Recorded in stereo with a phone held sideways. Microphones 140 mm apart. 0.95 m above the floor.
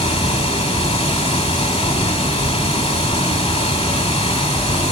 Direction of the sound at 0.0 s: 40° left (ahead or behind).